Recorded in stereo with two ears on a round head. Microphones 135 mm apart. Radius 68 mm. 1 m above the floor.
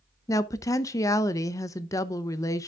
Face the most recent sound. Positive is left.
turn(degrees=20)  # may be behind; listen again after turning